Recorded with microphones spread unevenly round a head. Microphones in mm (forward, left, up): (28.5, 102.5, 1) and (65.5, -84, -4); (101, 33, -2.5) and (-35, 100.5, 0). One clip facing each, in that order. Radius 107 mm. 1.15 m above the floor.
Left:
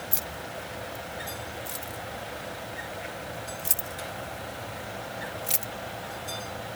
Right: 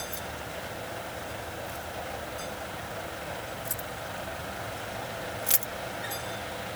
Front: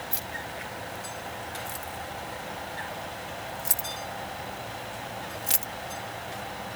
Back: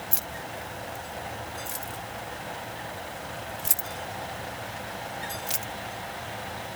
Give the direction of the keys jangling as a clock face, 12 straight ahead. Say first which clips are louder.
Even, even; 8 o'clock.